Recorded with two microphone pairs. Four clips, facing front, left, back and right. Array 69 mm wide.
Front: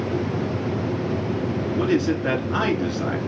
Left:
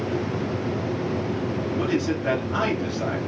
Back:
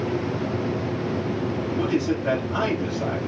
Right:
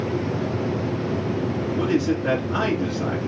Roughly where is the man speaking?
Ahead.